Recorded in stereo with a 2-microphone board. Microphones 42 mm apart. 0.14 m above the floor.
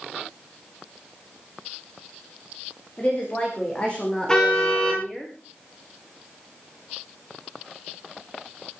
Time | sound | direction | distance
3.0 | a woman speaking | 35° left (ahead or behind) | 9 m
4.3 | a car horn | 20° left (ahead or behind) | 8.5 m